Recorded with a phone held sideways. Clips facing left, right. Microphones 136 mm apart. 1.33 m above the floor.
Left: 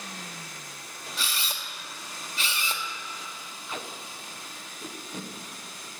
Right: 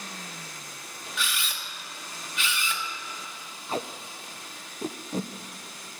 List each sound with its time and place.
1.2 s a camera shutter: 35° left (ahead or behind), 1.9 m
3.7 s tape being pulled: 35° right (ahead or behind), 0.8 m